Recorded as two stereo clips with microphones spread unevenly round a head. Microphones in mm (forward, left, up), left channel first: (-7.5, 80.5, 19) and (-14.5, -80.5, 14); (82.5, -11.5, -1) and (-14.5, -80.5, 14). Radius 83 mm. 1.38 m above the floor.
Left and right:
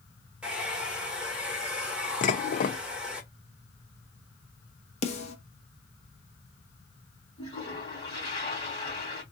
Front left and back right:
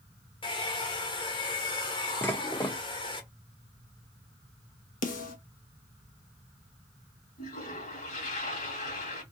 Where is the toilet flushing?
25° left, 2.5 m.